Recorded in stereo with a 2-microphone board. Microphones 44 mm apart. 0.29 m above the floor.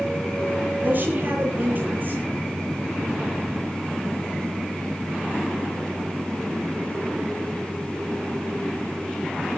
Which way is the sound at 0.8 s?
45° right (ahead or behind).